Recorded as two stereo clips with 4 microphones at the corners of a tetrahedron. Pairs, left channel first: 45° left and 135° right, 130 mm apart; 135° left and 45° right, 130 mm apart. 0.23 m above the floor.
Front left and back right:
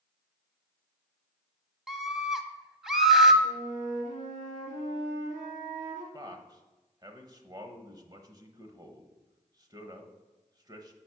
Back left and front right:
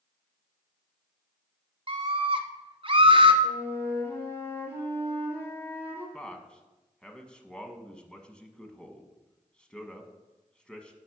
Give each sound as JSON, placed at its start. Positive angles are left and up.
{"t": 1.9, "sound": "a scream", "azimuth_deg": -50, "distance_m": 1.4}
{"t": 3.4, "sound": "a flute", "azimuth_deg": -155, "distance_m": 4.0}
{"t": 6.1, "sound": "a man speaking", "azimuth_deg": -150, "distance_m": 1.1}